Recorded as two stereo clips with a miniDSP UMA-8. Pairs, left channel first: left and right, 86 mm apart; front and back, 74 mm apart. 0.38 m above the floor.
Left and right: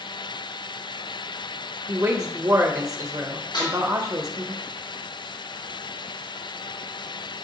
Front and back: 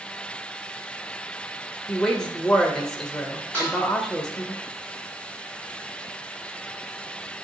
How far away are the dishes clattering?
About 2.5 m.